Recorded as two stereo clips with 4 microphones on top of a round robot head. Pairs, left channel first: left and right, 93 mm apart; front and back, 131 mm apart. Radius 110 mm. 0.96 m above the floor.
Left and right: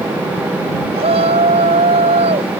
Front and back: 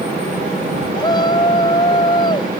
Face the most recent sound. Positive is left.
turn(degrees=-65)